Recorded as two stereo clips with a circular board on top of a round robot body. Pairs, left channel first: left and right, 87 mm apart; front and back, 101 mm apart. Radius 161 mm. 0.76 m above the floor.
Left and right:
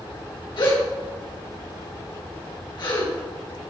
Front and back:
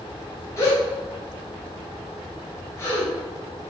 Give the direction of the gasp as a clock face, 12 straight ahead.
10 o'clock.